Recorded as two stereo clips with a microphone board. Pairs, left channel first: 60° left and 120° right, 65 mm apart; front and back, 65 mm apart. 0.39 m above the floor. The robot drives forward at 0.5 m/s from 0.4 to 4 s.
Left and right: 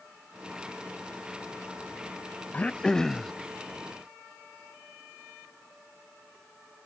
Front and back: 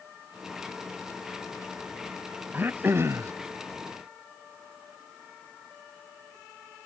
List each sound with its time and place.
2.5 s throat clearing: 125° left; by 3.3 s 145° left